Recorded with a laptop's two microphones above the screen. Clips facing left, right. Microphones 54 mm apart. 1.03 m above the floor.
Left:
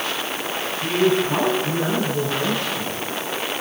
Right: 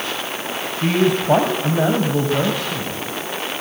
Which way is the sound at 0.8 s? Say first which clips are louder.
Right 2 dB; 80° right.